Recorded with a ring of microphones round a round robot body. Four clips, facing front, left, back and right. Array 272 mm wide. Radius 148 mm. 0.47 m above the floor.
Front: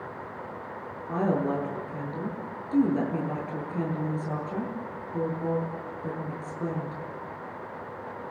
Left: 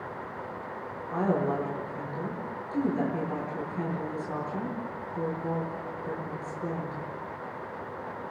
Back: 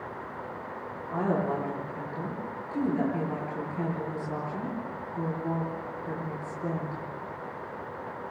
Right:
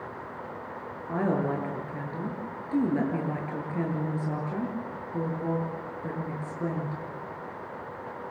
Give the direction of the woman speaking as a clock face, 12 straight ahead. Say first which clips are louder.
Even, front 2 dB; 2 o'clock.